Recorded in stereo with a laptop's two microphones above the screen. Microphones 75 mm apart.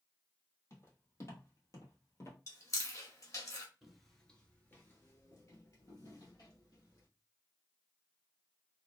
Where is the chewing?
45° left (ahead or behind), 0.7 m.